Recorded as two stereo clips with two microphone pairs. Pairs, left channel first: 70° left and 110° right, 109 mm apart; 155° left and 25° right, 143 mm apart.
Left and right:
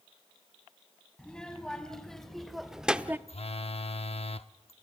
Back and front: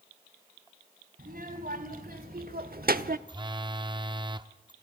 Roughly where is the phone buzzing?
Ahead left.